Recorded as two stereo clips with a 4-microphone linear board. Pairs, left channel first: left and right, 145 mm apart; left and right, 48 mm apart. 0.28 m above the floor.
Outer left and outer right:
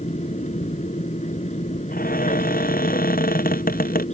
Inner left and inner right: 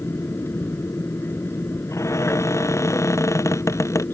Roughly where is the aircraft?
Left.